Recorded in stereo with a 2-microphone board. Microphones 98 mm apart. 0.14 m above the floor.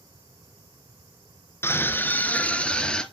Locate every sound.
1.6 s a scream: 25° left (ahead or behind), 1.5 m; by 3.0 s 10° left (ahead or behind), 2.0 m